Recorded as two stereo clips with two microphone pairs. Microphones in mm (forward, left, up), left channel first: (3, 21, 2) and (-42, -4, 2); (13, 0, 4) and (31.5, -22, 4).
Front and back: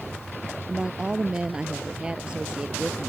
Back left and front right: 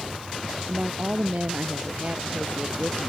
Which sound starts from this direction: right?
A woman speaking, at 0.7 s.